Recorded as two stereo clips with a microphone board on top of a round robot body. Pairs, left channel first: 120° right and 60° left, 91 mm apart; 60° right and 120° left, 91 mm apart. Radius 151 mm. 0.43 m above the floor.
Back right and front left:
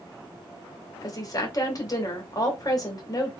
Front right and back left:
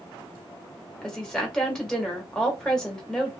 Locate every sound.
1.0 s a woman speaking: 140° right, 1.7 m